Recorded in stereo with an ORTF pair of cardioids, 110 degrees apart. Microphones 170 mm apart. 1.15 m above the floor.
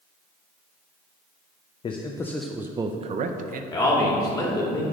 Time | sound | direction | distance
1.8 | a man speaking | 30° left | 0.6 m
3.7 | a man speaking | 20° left | 2 m